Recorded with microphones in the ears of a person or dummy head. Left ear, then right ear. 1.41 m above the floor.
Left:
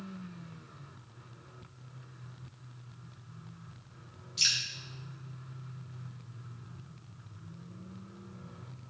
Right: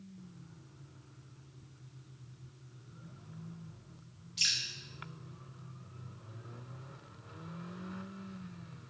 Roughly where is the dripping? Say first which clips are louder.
Left 3 dB; centre.